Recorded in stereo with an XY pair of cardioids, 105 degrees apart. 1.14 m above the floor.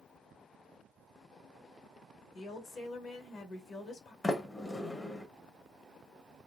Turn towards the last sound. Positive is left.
turn(degrees=25)